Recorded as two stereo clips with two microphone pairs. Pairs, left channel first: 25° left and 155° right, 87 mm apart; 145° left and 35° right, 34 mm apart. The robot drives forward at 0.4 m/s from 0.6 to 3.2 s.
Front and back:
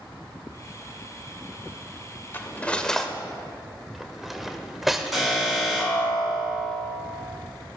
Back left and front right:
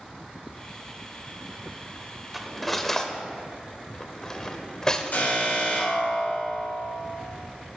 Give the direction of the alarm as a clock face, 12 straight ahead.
8 o'clock.